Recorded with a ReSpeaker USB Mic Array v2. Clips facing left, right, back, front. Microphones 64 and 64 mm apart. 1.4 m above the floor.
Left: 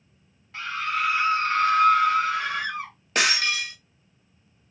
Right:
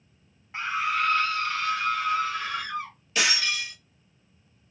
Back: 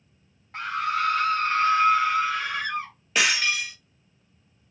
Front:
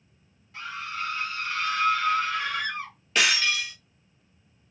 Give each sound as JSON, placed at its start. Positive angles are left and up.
{"t": 0.5, "sound": "a scream", "azimuth_deg": -155, "distance_m": 0.7}
{"t": 3.1, "sound": "breaking glass", "azimuth_deg": 95, "distance_m": 1.0}